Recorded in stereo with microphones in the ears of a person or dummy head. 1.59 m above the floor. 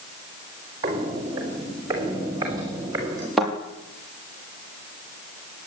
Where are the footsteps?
20° right (ahead or behind), 3.5 m.